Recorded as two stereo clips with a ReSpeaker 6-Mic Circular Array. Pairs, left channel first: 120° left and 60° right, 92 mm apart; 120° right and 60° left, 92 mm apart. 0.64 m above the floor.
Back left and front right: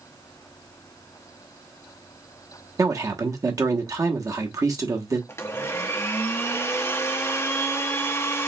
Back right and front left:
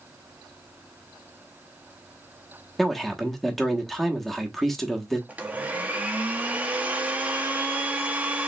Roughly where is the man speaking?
Ahead right.